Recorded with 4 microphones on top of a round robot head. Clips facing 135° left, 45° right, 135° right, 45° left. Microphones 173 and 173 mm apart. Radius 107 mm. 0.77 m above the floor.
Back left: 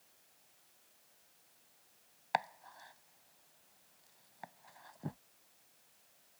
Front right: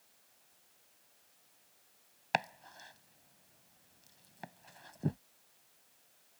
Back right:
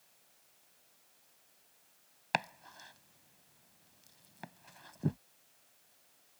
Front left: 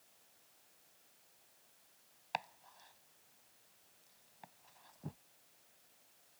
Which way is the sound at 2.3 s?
105° right.